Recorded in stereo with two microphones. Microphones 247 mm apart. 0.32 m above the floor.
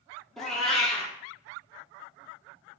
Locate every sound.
0.4 s a cat meowing: centre (ahead or behind), 1.0 m